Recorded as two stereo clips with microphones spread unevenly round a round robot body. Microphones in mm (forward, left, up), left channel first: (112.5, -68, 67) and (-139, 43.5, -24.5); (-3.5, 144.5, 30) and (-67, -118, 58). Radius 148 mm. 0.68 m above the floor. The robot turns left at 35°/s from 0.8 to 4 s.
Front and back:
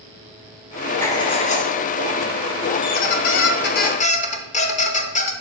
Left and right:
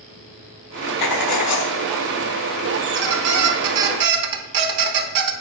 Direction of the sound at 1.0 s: 55° left.